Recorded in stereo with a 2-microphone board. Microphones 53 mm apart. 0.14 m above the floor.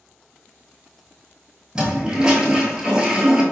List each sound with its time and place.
1.8 s a toilet flushing: 20° right (ahead or behind), 0.6 m